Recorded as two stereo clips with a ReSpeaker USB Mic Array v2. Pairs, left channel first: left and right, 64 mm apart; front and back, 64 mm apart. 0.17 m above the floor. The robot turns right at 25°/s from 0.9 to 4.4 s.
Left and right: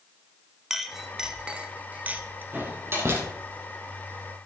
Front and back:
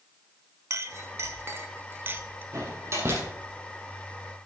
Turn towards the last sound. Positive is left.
turn(degrees=-100)